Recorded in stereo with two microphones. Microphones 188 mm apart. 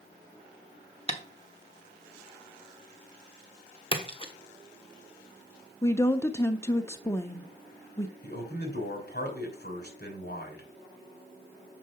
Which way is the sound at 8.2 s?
60° left (ahead or behind).